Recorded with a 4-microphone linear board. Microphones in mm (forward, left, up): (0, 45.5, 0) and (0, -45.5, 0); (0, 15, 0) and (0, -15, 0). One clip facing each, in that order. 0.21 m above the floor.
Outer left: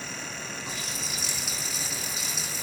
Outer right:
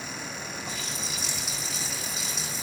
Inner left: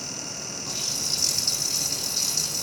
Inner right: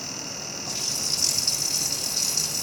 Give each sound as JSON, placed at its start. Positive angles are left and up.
{"t": 0.7, "sound": "a running tap", "side_deg": 0, "distance_m": 7.5}